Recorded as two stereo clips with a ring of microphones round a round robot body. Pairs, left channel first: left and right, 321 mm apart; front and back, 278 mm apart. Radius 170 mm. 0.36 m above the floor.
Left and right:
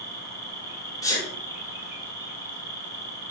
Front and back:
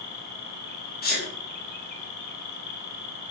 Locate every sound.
0.0 s an insect: 10° right, 2 m
1.0 s a sneeze: 20° left, 1.7 m